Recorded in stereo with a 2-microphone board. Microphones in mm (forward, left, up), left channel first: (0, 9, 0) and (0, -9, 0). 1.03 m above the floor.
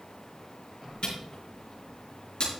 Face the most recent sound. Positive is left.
turn(degrees=55)  # may be behind; listen again after turning